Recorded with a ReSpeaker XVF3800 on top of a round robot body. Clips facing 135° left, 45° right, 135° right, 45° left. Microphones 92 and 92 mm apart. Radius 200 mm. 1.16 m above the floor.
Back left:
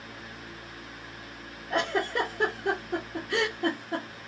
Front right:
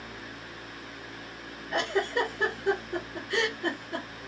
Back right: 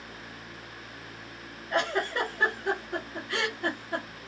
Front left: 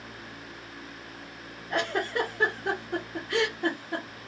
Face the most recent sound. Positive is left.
turn(degrees=115)